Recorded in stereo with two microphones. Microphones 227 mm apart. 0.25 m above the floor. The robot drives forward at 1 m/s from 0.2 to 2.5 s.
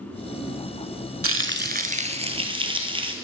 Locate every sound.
1.2 s frying: 70° right (ahead or behind), 0.6 m; by 3.1 s 25° right (ahead or behind), 1.5 m